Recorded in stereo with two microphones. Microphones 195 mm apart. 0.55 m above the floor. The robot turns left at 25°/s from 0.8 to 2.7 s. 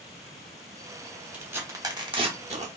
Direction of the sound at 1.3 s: 10° right (ahead or behind).